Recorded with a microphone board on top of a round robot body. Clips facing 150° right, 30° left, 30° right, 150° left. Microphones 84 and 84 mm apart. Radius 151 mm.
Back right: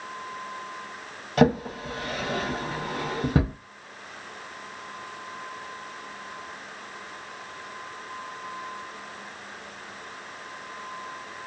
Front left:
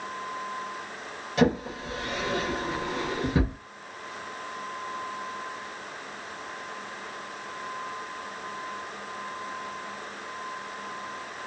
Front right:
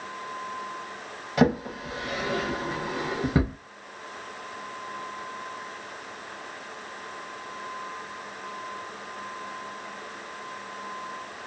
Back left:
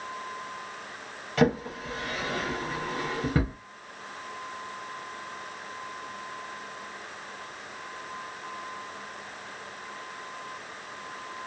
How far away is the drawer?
About 0.5 m.